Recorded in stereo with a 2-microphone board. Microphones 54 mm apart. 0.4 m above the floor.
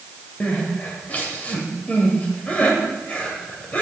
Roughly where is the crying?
Left.